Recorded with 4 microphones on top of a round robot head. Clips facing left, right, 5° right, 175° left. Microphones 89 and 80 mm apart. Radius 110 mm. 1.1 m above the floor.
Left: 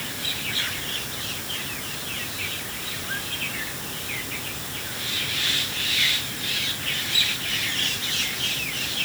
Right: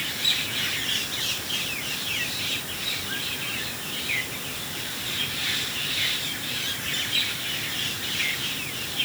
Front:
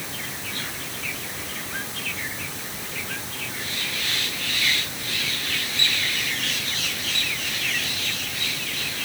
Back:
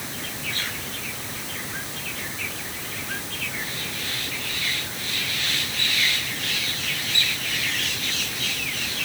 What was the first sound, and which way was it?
Only background noise.